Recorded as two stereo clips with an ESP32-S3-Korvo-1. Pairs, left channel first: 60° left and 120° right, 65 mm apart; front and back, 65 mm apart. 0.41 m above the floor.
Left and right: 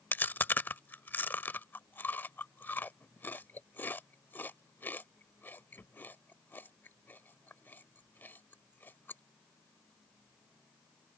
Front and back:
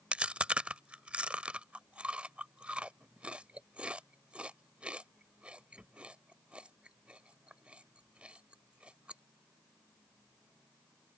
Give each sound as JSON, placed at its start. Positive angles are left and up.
{"t": 0.1, "sound": "chewing", "azimuth_deg": 110}